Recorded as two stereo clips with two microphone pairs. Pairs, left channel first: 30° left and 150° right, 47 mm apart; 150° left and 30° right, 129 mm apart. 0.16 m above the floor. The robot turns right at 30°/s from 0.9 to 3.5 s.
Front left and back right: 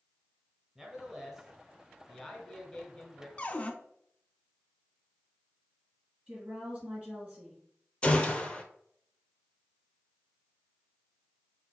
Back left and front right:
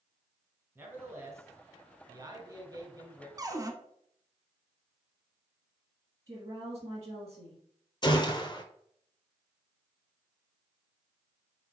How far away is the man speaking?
About 1.1 m.